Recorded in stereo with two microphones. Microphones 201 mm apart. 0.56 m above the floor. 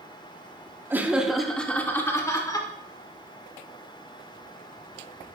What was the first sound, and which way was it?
Laughter, 10° right (ahead or behind).